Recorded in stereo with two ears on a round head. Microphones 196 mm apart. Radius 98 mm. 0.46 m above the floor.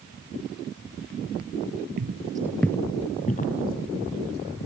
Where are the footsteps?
45° right (ahead or behind), 0.6 m; by 4.7 s 50° left (ahead or behind), 2 m.